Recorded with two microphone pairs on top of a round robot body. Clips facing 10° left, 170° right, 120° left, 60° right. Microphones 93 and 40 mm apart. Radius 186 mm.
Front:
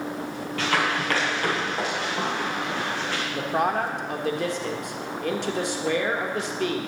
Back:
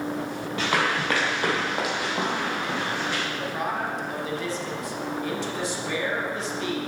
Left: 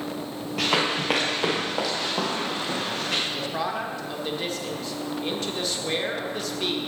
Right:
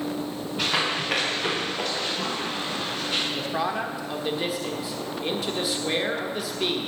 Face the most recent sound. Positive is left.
turn(degrees=25)